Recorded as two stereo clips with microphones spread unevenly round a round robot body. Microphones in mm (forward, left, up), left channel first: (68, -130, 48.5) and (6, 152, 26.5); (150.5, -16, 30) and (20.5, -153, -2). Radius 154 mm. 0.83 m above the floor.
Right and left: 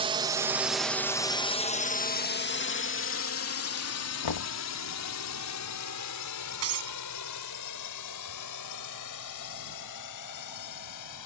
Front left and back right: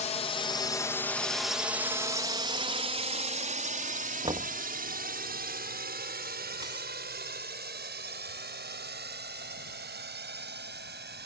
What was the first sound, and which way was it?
A drone, 70° left.